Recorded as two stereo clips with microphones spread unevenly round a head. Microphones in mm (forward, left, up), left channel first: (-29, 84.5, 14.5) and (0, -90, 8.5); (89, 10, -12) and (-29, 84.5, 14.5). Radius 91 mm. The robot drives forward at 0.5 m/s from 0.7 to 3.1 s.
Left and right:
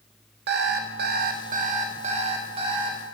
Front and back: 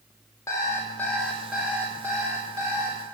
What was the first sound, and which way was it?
An alarm clock, 110° right.